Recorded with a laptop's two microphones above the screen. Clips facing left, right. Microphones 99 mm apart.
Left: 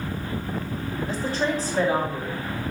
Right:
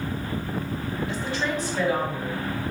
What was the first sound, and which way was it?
A woman speaking, 40° left (ahead or behind).